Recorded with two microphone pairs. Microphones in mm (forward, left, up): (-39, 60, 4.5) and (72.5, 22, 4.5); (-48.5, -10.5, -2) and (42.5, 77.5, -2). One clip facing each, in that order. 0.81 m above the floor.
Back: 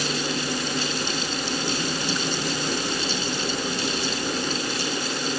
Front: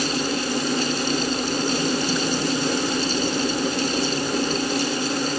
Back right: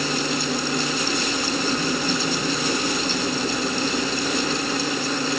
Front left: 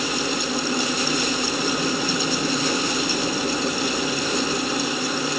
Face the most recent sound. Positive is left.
No sound to turn to.